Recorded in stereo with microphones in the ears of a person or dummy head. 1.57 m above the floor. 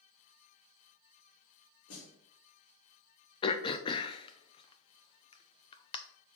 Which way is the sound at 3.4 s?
30° left (ahead or behind).